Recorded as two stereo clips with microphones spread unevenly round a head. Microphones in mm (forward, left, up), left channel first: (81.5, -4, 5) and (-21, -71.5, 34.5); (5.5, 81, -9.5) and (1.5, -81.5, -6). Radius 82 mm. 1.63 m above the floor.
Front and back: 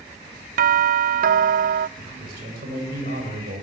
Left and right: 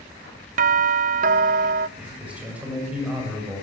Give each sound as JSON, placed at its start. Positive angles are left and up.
{"t": 0.6, "sound": "a doorbell", "azimuth_deg": -135, "distance_m": 0.6}
{"t": 2.0, "sound": "a man speaking", "azimuth_deg": -175, "distance_m": 9.0}